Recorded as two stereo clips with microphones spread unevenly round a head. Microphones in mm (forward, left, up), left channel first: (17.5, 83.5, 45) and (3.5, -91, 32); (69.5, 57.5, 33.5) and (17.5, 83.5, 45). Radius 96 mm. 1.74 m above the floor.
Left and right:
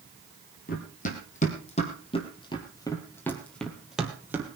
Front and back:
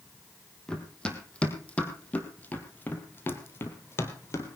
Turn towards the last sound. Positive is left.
turn(degrees=-20)